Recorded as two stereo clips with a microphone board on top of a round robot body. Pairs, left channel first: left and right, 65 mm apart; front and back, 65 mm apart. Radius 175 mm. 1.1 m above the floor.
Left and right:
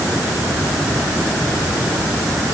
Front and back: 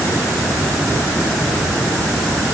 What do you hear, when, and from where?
Only background noise.